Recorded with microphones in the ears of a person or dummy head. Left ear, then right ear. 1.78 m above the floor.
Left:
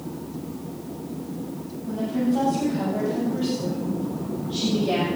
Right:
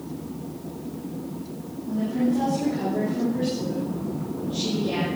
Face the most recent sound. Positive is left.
turn(degrees=35)  # may be behind; listen again after turning